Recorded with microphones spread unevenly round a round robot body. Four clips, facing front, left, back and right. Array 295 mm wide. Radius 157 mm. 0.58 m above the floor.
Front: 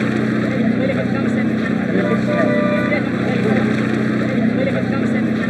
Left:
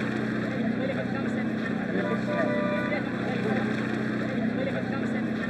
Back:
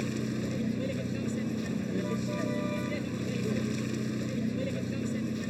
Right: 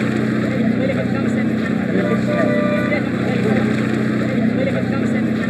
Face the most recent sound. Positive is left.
turn(degrees=-35)